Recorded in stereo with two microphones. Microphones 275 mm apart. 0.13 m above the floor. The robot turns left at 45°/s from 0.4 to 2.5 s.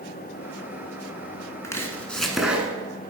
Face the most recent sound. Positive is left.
turn(degrees=-5)  # may be behind; listen again after turning